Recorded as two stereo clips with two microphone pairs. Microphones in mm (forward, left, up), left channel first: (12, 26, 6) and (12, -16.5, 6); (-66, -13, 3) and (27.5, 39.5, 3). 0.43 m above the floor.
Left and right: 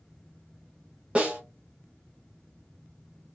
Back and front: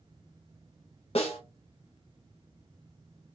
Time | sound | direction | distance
1.1 | a snare drum | 150° right | 0.9 m